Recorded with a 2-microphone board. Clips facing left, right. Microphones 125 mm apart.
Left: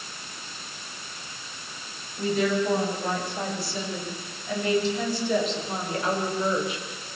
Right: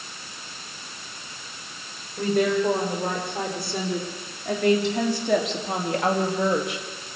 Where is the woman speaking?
60° right (ahead or behind), 7.5 m; by 6.9 s 70° right (ahead or behind), 3 m.